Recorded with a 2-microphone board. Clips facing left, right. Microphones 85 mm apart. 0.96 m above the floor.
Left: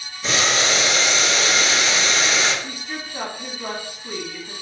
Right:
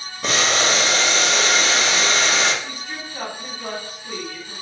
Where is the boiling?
55° right (ahead or behind), 1.0 m.